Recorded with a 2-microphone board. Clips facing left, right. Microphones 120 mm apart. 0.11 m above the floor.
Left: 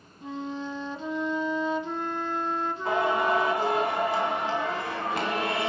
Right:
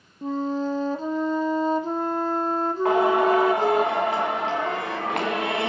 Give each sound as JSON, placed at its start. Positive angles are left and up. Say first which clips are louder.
{"t": 0.2, "sound": "a flute", "louder": "right 8 dB", "side_deg": -40, "distance_m": 0.8}
{"t": 2.9, "sound": "singing", "louder": "right 6 dB", "side_deg": -80, "distance_m": 2.5}